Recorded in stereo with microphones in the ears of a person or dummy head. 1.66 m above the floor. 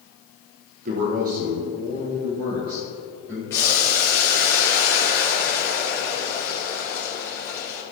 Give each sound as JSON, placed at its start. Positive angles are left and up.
{"t": 0.8, "sound": "a man speaking", "side_deg": -40, "distance_m": 1.3}
{"t": 3.5, "sound": "boiling", "side_deg": 15, "distance_m": 3.0}